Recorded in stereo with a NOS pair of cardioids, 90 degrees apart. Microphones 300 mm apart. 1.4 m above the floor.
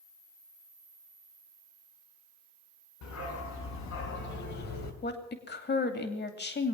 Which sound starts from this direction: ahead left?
A woman speaking, at 5.0 s.